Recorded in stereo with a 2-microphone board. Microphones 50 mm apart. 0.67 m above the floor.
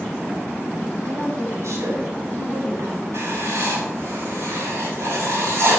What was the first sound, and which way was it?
A woman speaking, 70° right (ahead or behind).